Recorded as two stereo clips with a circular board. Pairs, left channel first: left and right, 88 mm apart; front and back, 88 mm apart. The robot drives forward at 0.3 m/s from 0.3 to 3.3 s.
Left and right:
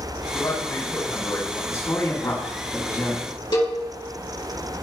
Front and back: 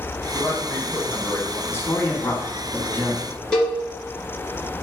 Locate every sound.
0.3 s a man speaking: 55° left, 3.5 m; by 1.6 s 60° left, 3.5 m
1.7 s a man speaking: 50° left, 2 m; by 3.3 s 65° left, 1.9 m
3.5 s a cowbell: 80° left, 3 m